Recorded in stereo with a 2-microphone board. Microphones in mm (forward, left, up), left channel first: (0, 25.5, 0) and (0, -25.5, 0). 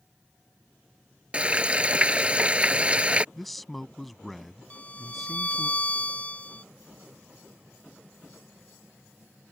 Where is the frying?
25° right (ahead or behind).